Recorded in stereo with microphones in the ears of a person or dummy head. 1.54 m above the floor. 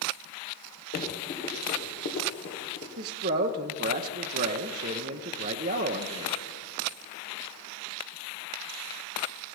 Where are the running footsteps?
45° left (ahead or behind), 2 m; by 2.9 s 60° left (ahead or behind), 3 m.